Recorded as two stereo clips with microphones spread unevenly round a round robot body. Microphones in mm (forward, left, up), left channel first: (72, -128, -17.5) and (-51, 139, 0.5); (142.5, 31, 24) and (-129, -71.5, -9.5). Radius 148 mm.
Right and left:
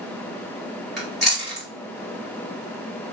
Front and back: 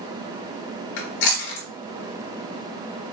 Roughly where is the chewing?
Ahead left.